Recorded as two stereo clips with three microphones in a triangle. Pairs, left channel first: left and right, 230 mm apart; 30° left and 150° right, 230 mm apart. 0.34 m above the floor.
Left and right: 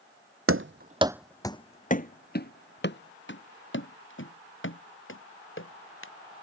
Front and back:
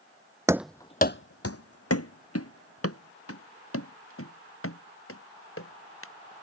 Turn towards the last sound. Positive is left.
turn(degrees=60)